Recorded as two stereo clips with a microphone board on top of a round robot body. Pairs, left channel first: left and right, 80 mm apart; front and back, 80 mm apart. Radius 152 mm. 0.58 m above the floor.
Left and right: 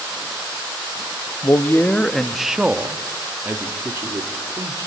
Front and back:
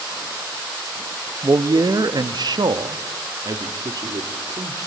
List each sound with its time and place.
1.4 s a man speaking: 135° left, 0.8 m; by 4.9 s 140° right, 1.8 m